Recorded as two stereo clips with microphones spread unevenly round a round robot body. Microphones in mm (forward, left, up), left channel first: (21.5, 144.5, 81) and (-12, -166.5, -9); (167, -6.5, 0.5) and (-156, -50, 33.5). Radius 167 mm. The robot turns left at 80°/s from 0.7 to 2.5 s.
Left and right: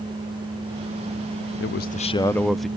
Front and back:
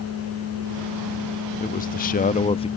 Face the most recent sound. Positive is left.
turn(degrees=-35)